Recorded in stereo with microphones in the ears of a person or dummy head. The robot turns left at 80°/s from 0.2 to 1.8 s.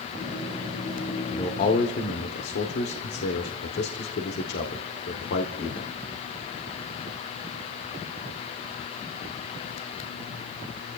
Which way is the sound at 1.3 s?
15° left (ahead or behind).